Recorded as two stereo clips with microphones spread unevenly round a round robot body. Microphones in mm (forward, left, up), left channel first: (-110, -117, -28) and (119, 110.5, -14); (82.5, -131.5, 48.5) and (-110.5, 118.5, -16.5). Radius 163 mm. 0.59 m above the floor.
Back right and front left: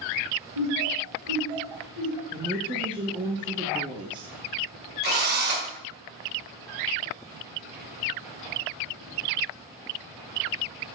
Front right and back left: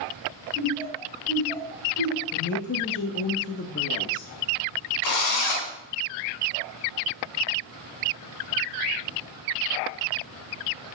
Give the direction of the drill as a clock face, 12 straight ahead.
1 o'clock.